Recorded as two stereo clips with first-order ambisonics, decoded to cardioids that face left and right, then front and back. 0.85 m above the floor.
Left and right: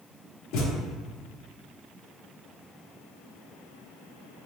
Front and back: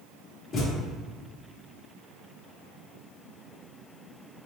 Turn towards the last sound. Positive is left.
turn(degrees=60)